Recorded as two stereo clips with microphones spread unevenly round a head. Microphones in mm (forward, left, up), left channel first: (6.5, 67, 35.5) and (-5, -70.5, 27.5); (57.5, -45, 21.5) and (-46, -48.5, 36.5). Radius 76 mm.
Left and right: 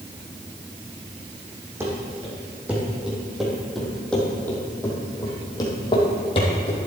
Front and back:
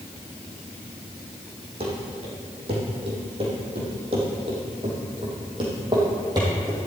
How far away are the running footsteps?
About 3.5 m.